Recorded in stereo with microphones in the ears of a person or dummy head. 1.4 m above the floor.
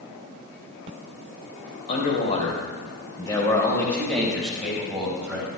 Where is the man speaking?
45° left (ahead or behind), 4.5 m; by 5.5 s 10° right (ahead or behind), 6.5 m.